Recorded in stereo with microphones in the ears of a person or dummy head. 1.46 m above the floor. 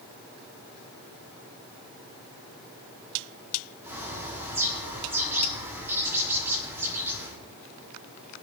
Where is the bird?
15° right (ahead or behind), 6.5 m.